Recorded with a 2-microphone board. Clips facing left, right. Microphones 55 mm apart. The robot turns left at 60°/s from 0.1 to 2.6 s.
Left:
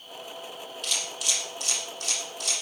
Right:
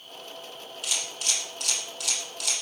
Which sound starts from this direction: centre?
A camera shutter, at 0.8 s.